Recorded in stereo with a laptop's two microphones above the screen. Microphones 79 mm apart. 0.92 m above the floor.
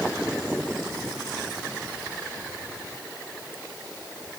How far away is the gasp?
No gasp in this recording.